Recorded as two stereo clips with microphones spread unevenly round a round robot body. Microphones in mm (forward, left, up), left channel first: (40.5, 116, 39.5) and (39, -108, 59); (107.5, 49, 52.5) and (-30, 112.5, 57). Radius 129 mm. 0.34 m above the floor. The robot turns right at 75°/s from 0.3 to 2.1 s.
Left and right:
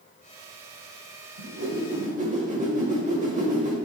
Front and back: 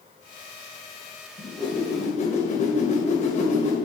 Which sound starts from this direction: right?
A whoosh, at 1.4 s.